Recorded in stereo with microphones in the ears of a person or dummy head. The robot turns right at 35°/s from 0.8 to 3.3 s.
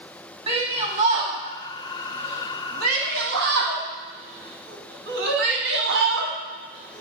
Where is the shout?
25° right (ahead or behind), 2.5 m; by 7.0 s 65° right (ahead or behind), 2.5 m.